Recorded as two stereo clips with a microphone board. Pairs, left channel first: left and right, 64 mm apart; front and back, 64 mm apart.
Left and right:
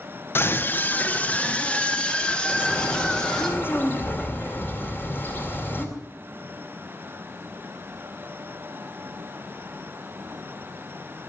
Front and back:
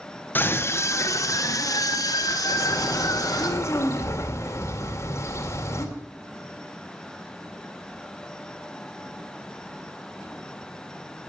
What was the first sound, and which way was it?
A scream, 50° left.